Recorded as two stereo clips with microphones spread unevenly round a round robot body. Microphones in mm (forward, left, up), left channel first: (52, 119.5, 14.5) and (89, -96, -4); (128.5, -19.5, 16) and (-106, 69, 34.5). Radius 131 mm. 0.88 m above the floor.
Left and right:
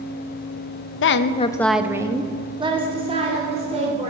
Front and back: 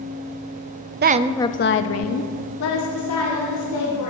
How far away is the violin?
I don't hear a violin.